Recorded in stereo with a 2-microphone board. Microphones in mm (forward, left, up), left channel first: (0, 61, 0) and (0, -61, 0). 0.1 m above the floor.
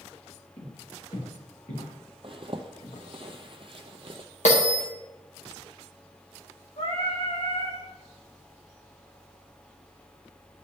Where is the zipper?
50° right (ahead or behind), 0.9 m.